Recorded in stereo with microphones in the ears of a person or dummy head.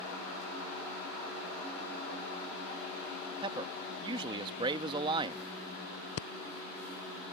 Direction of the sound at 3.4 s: 25° right (ahead or behind).